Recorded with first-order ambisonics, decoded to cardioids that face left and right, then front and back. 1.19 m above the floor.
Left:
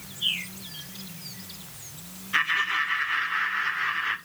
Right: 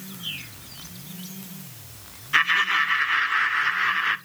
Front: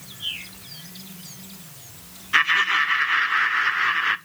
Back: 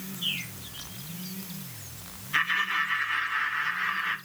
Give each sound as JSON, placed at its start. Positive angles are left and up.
{"t": 0.2, "sound": "a bird", "azimuth_deg": 95, "distance_m": 3.0}
{"t": 2.3, "sound": "laughter", "azimuth_deg": -30, "distance_m": 0.5}